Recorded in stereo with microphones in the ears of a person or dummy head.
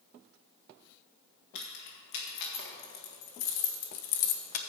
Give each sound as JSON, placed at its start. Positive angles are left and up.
{"t": 1.6, "sound": "keys jangling", "side_deg": 70, "distance_m": 2.5}